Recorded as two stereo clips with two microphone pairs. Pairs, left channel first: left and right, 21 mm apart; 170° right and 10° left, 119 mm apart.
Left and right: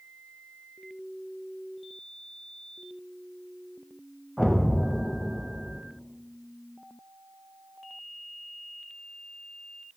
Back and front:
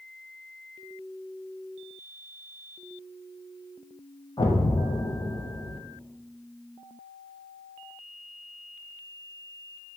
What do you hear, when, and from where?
4.4 s an explosion: 155° left, 0.9 m